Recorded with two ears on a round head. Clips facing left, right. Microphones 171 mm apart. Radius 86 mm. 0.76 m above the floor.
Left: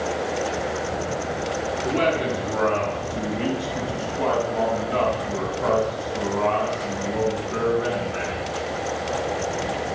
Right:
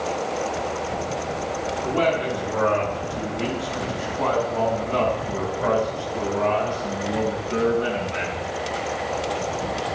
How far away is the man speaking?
About 7 m.